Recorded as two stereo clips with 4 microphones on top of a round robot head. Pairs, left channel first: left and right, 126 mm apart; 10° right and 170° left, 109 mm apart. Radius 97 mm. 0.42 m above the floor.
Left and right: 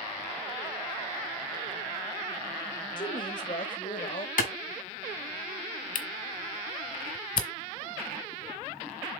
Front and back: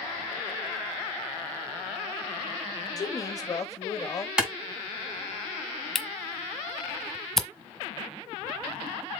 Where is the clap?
85° left, 3 m.